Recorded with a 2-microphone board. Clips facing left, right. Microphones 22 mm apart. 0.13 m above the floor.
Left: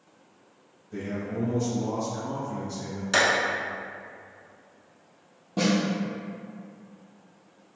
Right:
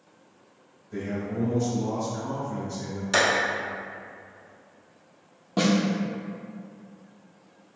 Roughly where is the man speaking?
Centre.